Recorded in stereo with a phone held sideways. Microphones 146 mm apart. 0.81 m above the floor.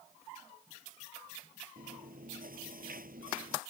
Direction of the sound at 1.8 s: 80° right.